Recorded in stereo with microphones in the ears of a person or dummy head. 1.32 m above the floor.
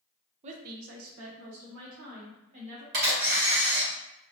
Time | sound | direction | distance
0.4 | a woman speaking | 45° right (ahead or behind) | 0.5 m
2.9 | a camera shutter | 50° right (ahead or behind) | 1.5 m